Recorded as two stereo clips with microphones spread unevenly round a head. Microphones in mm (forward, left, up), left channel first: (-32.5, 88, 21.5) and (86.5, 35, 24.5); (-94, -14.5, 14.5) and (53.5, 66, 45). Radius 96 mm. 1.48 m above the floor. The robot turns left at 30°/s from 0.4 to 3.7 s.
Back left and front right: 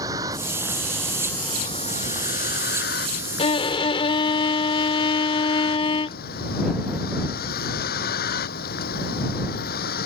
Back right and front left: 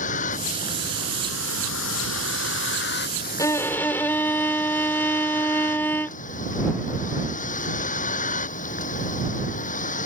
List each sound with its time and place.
0.0 s a vehicle: 100° right; by 10.1 s 160° left
3.4 s a violin: 130° left; by 6.2 s 120° left